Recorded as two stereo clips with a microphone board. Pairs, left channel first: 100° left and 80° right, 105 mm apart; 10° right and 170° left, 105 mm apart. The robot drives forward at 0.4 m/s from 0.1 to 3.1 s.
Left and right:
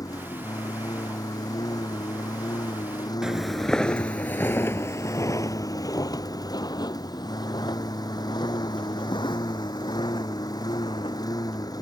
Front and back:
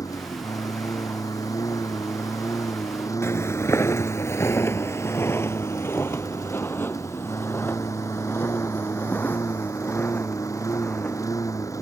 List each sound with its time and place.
0.0 s a lawn mower: 45° left; by 11.8 s 50° left
3.2 s footsteps: straight ahead; by 11.3 s 60° left